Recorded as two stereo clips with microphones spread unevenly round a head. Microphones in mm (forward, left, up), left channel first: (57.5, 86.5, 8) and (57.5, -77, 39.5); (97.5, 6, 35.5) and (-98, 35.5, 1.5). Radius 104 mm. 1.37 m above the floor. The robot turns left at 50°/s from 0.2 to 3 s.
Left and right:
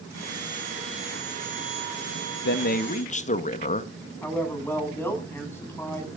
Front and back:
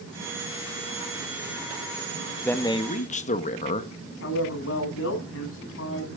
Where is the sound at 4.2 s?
15° left, 9.5 m.